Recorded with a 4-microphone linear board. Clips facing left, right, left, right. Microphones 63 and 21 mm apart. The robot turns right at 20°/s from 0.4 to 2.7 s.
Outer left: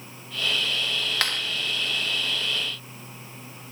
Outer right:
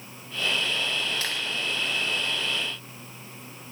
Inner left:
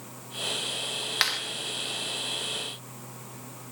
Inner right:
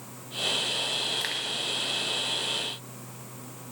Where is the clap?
70° left (ahead or behind), 4 m; by 1.4 s 65° left (ahead or behind), 4 m.